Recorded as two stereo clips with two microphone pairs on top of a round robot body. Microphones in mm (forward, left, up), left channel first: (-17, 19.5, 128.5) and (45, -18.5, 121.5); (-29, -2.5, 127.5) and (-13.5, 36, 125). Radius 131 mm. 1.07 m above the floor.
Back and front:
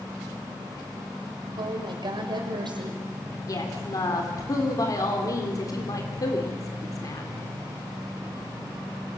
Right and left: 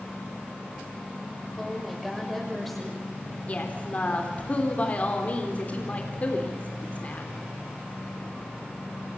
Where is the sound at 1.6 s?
25° right, 6 m.